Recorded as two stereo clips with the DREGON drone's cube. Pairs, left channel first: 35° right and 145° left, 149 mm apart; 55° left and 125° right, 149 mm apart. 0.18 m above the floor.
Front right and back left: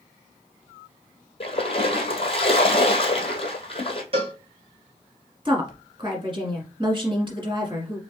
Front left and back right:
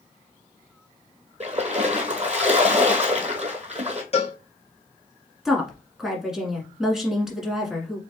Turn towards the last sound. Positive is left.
turn(degrees=150)